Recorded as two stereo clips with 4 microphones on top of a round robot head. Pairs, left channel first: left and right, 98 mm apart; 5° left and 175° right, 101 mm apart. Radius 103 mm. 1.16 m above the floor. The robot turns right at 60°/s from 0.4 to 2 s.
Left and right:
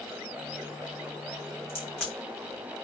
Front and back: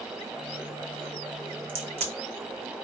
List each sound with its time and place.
1.7 s a crack: 150° left, 4 m; by 2.8 s 170° left, 4 m